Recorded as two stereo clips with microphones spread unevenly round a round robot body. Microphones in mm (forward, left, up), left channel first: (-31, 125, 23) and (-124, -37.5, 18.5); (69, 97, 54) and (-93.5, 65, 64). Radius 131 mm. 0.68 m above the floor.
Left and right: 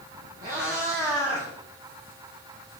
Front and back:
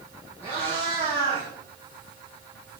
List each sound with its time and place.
0.4 s a cat meowing: 60° right, 4 m; by 2.8 s 40° right, 2.5 m